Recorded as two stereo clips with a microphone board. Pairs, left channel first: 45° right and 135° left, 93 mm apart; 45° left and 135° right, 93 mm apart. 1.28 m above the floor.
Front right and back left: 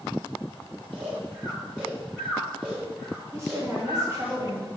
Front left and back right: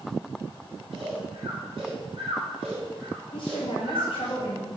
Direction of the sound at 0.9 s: 145° right.